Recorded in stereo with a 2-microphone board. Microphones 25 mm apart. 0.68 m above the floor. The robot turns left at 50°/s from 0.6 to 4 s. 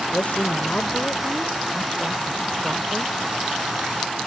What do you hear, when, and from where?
0.1 s a woman speaking: 70° left; by 3.1 s 60° right